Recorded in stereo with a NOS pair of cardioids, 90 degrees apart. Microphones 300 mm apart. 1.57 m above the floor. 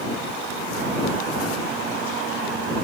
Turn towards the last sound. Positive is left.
No sound to turn to.